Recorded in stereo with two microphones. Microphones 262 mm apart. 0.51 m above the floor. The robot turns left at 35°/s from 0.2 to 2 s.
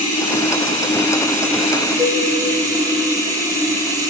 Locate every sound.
0.0 s running water: 70° left, 1.6 m; by 4.1 s 10° left, 1.6 m
2.0 s a cowbell: 10° right (ahead or behind), 0.6 m